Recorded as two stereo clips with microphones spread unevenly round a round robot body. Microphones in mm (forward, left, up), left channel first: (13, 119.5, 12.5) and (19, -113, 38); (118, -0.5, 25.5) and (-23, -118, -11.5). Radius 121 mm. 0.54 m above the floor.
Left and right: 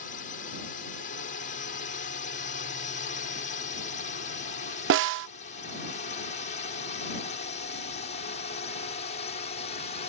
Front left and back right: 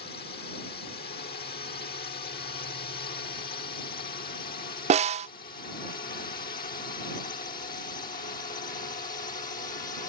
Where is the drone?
70° left.